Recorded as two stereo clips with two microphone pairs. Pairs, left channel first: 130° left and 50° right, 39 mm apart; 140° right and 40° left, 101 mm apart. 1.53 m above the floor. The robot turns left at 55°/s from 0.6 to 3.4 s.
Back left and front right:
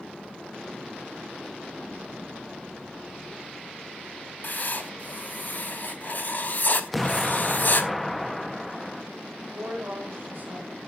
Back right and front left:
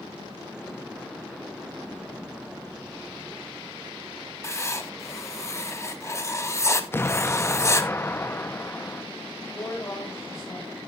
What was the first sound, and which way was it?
Writing, 160° left.